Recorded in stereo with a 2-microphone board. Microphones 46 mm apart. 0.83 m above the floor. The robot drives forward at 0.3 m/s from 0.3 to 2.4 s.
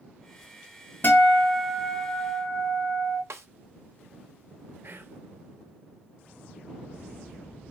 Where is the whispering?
55° right (ahead or behind), 0.6 m.